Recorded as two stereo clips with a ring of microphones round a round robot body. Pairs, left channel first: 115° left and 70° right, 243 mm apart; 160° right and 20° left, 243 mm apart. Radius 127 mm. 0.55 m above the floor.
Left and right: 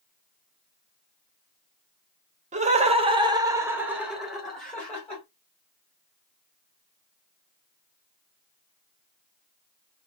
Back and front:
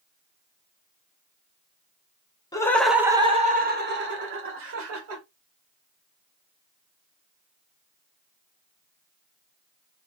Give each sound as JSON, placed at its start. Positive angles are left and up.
{"t": 2.5, "sound": "laughter", "azimuth_deg": -95, "distance_m": 0.9}